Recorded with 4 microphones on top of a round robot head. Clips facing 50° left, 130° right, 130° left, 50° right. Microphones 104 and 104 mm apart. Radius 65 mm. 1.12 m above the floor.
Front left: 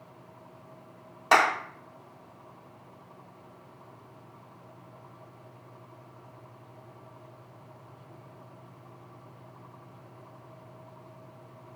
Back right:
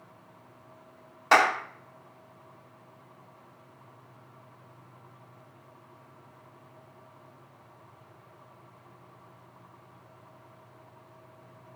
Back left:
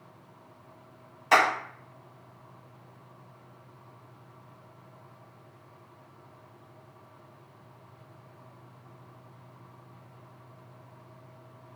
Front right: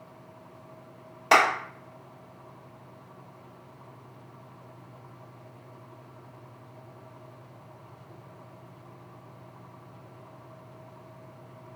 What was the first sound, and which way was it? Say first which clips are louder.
A clap: back right 1 dB, front right 2 dB; 30° right.